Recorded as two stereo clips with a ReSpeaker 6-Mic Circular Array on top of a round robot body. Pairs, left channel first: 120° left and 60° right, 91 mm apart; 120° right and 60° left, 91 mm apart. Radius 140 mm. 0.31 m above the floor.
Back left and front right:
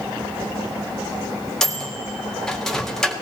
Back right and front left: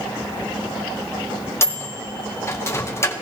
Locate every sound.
1.6 s a microwave: 160° right, 1.5 m